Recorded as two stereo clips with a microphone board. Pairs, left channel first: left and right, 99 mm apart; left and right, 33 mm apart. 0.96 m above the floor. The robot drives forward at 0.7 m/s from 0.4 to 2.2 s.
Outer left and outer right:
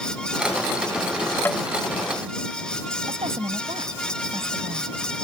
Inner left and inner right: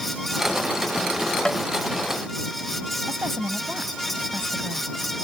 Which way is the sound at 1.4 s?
20° left (ahead or behind).